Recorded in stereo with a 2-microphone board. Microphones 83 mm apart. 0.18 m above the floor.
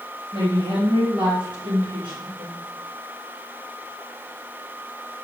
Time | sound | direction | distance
0.3 | a woman speaking | 70° right (ahead or behind) | 4 m